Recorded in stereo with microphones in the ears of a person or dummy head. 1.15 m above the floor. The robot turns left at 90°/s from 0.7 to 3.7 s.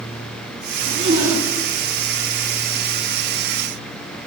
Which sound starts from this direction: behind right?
A zipper, at 0.8 s.